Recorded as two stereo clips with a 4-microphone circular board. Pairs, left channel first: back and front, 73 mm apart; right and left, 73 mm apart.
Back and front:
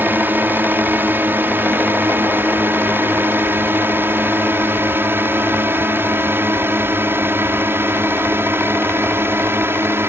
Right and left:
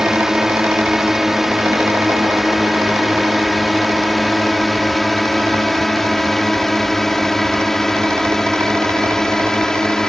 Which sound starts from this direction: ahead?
A drone, at 0.0 s.